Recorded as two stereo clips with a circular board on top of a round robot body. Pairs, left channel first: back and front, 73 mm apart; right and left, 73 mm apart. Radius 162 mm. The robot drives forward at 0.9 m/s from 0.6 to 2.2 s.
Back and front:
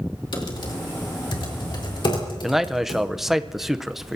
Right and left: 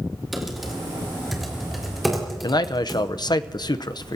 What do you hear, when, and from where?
0.3 s typing on a keyboard: straight behind, 3 m
2.4 s a man speaking: 85° right, 0.9 m